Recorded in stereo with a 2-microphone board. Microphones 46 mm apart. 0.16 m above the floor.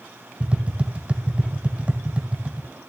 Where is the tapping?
25° right (ahead or behind), 1.4 m.